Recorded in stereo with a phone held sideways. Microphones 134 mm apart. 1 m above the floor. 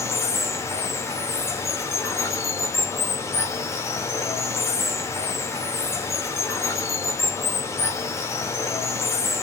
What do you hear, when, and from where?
0.0 s running water: 20° left (ahead or behind), 0.8 m